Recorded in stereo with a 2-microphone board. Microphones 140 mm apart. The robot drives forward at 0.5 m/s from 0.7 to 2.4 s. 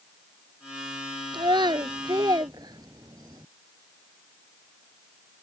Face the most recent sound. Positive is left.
turn(degrees=-30)  # may be behind; listen again after turning